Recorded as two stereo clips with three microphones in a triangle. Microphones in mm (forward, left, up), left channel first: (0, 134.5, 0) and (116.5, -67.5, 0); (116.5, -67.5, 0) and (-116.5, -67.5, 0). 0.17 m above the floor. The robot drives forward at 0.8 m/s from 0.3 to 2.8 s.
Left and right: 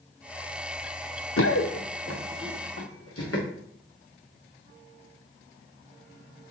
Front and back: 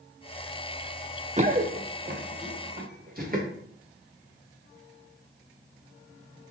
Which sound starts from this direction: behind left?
Running footsteps, at 1.4 s.